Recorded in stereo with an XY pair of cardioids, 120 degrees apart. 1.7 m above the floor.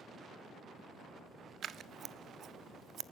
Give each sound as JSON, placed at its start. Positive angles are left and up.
{"t": 1.6, "sound": "scissors", "azimuth_deg": -50, "distance_m": 0.7}